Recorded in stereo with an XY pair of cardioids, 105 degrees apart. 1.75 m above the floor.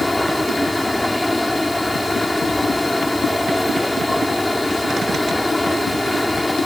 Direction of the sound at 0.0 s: 5° left.